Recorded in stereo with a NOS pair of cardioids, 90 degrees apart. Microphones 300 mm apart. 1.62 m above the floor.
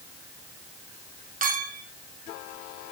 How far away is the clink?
About 2.5 m.